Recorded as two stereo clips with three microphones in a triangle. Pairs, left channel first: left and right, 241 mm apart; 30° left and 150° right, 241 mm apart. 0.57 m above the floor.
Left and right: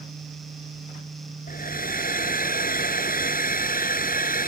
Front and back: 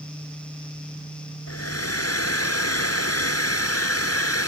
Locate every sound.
1.5 s a hair dryer: 35° left